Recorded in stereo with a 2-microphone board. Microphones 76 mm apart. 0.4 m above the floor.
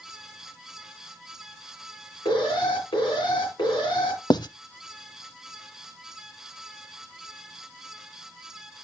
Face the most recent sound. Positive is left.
turn(degrees=65)  # may be behind; listen again after turning